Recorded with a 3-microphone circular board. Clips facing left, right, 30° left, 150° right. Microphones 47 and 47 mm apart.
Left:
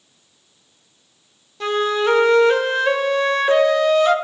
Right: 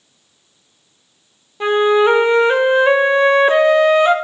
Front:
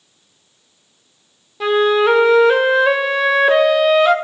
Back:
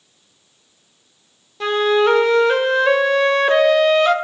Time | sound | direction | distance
1.6 | a flute | 50° right | 0.6 m